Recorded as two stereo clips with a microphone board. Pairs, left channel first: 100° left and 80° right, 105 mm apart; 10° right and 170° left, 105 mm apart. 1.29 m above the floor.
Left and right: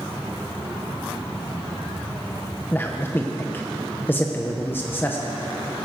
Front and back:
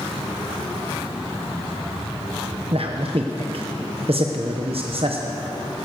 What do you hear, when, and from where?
2.7 s a man speaking: 165° left, 1.0 m